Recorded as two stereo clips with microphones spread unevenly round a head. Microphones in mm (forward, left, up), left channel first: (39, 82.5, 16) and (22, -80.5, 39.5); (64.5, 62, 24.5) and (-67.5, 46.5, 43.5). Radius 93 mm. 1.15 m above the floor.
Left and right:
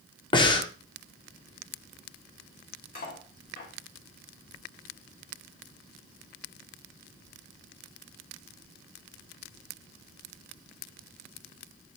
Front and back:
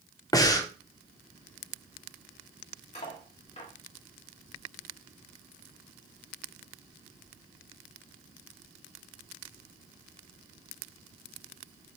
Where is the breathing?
50° left, 0.8 m.